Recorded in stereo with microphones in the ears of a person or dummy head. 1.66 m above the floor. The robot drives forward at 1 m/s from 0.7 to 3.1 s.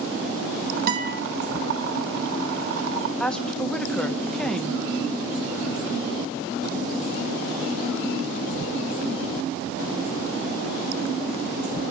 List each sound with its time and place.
0.9 s a guitar: 50° right (ahead or behind), 2 m; by 1.2 s 55° right (ahead or behind), 1.9 m
3.2 s a woman speaking: centre (ahead or behind), 1.2 m